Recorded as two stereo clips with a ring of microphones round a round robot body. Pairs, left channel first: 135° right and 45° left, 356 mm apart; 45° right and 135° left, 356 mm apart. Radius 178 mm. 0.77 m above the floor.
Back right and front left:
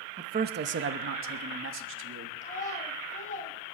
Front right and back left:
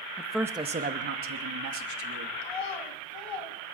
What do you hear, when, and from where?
0.2 s a man speaking: 15° left, 0.8 m; by 2.4 s 100° left, 2 m
2.4 s a child speaking: 65° right, 3 m